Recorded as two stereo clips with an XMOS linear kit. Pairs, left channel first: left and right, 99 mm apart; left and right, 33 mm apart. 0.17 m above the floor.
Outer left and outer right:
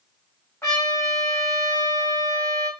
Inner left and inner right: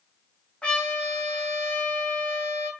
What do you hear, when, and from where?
0.6 s a trumpet: 25° left (ahead or behind), 1.8 m